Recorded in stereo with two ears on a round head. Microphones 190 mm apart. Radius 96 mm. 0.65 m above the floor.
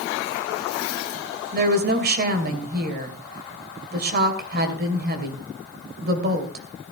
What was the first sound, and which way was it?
A woman speaking, 50° right (ahead or behind).